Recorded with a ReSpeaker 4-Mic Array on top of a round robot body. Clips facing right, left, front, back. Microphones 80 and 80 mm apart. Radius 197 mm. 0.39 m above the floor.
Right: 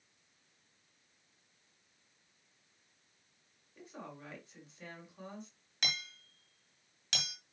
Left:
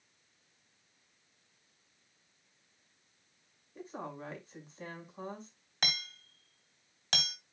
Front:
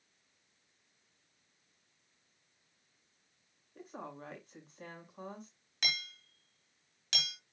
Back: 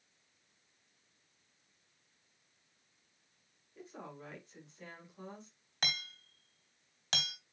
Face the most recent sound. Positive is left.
turn(degrees=130)